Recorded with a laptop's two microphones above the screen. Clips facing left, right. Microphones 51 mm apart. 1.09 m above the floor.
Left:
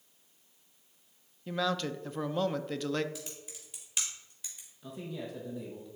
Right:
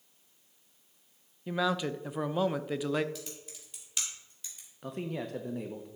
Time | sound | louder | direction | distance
1.5 | a man speaking | right 2 dB | 10° right (ahead or behind) | 0.5 m
3.1 | typing on a keyboard | right 1 dB | 5° left (ahead or behind) | 1.9 m
4.8 | a man speaking | right 4 dB | 60° right (ahead or behind) | 0.8 m